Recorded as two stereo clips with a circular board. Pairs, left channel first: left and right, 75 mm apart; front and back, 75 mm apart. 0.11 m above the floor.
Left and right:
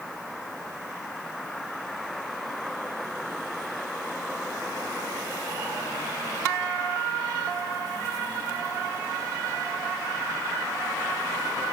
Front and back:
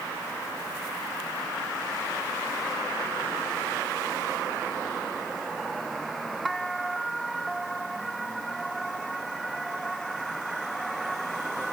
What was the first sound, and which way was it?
Only background noise.